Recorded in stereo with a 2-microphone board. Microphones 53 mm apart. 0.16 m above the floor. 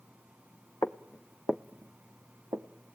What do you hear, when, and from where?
0.8 s footsteps: 45° left (ahead or behind), 1.1 m; by 2.7 s 65° right (ahead or behind), 1.9 m